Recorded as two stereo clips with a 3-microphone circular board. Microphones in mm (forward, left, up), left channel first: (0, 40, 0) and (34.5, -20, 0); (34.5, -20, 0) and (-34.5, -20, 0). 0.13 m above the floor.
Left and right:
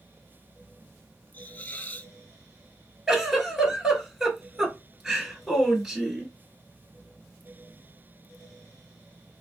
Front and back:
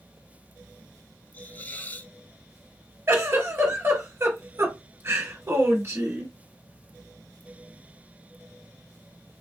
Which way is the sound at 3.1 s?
145° right.